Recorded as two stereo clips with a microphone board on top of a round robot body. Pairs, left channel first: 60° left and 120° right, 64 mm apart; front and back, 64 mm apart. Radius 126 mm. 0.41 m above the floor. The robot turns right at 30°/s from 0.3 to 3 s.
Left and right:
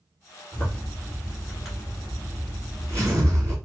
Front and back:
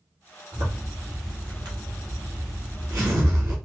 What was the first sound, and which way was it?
A zipper, 125° left.